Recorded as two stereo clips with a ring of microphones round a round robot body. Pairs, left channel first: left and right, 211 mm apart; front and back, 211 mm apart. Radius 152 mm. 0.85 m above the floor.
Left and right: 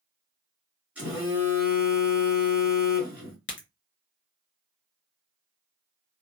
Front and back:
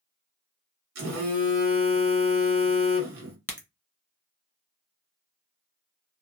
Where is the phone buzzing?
175° right, 0.9 m.